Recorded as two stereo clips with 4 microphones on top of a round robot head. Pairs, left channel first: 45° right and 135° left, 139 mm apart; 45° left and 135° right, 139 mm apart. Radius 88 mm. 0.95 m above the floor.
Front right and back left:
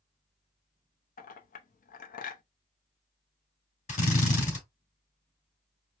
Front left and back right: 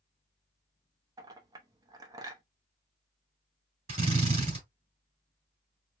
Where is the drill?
85° right, 3 m.